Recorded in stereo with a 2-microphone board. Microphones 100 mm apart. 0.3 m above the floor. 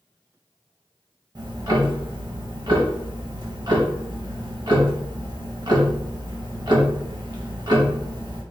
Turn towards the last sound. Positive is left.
turn(degrees=-50)  # may be behind; listen again after turning